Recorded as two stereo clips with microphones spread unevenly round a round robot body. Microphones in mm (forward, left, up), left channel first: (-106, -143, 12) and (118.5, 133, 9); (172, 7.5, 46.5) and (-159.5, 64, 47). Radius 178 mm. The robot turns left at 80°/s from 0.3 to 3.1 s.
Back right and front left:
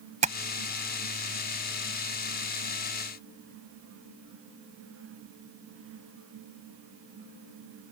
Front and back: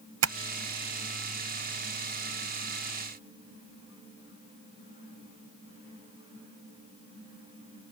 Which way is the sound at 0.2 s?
125° left.